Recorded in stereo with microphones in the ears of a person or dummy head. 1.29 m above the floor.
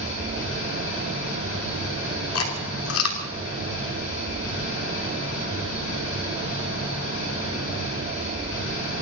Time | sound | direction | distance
0.0 | an engine running | 75° left (ahead or behind) | 7 m
2.4 | chewing | 80° left | 3 m